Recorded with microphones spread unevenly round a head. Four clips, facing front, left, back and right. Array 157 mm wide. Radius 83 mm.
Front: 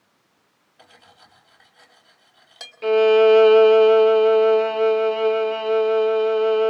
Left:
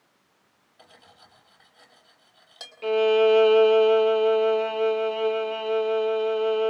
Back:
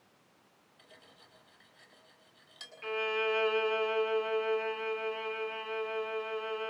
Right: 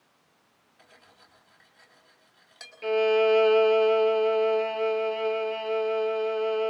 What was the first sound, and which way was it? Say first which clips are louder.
Cutlery clinking: left 4 dB, front 9 dB; 30° left.